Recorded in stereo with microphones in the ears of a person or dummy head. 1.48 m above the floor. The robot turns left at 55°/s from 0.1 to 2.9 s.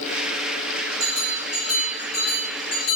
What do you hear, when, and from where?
1.0 s a bell: 35° right (ahead or behind), 0.9 m; by 3.0 s 70° left (ahead or behind), 0.9 m